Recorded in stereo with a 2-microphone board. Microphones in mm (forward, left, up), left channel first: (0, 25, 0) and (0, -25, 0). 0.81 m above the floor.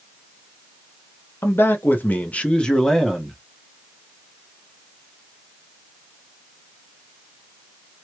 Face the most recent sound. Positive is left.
turn(degrees=0)  # may be behind; listen again after turning